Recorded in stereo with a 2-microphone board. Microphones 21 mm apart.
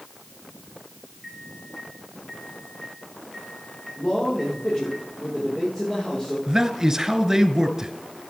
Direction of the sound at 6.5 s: 25° right (ahead or behind).